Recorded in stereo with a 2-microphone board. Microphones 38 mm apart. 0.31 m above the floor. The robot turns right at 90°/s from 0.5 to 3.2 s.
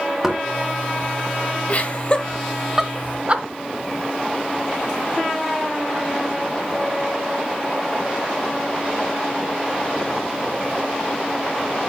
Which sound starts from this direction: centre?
Knocking, at 0.2 s.